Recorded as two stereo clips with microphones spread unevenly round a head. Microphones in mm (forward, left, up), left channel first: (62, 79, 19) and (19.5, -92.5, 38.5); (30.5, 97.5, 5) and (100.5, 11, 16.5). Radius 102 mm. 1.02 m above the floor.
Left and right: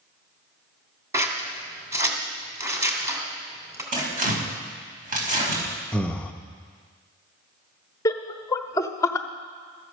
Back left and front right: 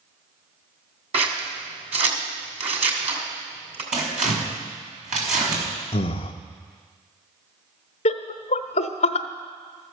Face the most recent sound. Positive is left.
turn(degrees=150)